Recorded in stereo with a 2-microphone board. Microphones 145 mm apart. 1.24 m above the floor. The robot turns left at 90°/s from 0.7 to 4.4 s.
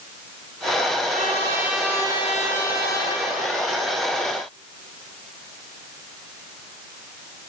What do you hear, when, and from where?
1.1 s a trumpet: 115° right, 9.5 m; by 3.2 s 50° left, 9.5 m